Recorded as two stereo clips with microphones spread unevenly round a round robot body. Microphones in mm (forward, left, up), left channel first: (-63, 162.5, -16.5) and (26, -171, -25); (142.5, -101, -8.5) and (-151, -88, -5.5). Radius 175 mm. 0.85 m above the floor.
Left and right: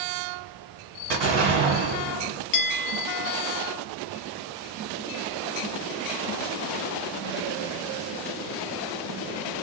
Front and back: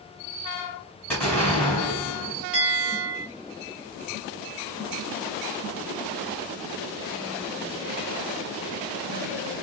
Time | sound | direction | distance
1.1 | an explosion | 85° right | 1.8 m
2.5 | a bell | 90° left | 0.7 m